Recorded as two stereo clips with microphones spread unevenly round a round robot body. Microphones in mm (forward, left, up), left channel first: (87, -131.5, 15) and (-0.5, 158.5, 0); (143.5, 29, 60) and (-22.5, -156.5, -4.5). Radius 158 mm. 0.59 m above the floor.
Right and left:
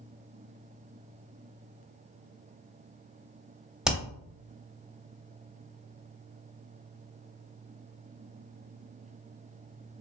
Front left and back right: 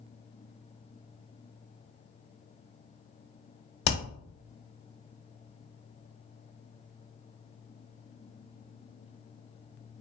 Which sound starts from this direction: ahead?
Hammering, at 3.9 s.